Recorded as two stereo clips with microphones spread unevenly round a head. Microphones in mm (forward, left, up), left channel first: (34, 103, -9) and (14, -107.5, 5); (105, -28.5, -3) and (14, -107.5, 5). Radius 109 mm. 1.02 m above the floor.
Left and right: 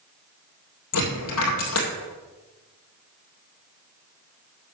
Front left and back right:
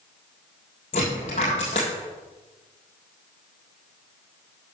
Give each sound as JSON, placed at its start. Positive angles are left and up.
{"t": 0.9, "sound": "a dropped coin", "azimuth_deg": 95, "distance_m": 2.5}